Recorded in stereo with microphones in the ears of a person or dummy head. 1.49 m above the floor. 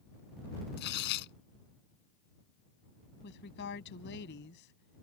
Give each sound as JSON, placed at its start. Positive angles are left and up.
{"t": 0.8, "sound": "tearing paper", "side_deg": 60}
{"t": 3.2, "sound": "a woman speaking", "side_deg": 60}